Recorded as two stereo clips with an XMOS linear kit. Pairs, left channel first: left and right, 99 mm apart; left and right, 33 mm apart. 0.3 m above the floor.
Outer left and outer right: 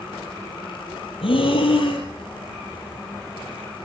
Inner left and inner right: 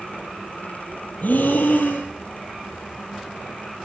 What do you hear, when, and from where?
1.2 s breathing: 60° left (ahead or behind), 4 m